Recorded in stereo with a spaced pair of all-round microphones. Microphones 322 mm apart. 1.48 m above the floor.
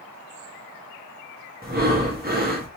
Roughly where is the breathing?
Right.